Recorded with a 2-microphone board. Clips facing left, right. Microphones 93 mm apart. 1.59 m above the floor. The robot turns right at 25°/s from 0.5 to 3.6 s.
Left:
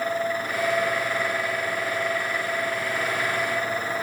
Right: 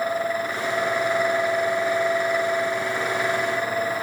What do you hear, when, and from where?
Only background noise.